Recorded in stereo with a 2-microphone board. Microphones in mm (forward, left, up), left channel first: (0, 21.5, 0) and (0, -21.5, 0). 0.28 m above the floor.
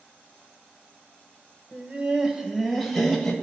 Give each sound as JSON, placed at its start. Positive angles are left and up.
{"t": 1.7, "sound": "laughter", "side_deg": -25, "distance_m": 1.2}